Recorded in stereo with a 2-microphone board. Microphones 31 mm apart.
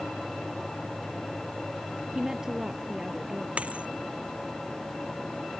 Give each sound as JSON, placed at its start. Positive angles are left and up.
{"t": 2.1, "sound": "a woman speaking", "side_deg": -20}
{"t": 3.6, "sound": "a dropped coin", "side_deg": -45}